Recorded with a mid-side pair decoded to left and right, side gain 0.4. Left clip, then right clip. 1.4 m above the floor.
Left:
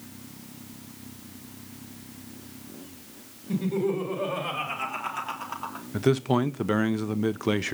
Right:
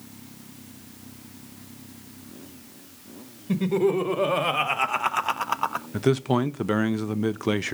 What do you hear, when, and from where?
3.5 s laughter: 60° right, 2.0 m; by 5.9 s 80° right, 0.6 m
5.9 s a man speaking: 15° right, 0.8 m